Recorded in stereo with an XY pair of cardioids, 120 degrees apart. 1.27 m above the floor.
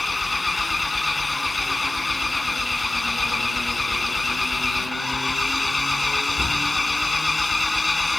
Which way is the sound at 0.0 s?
15° left.